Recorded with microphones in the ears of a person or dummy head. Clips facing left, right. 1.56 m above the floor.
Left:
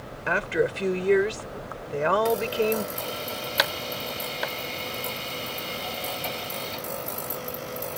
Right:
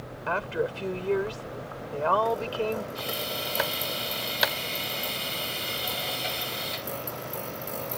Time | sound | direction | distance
0.3 | a woman speaking | 25° left (ahead or behind) | ?
3.0 | a drill | 20° right (ahead or behind) | ?